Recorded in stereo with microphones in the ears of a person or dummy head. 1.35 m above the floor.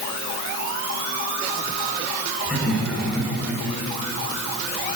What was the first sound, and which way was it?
Laughter, centre (ahead or behind).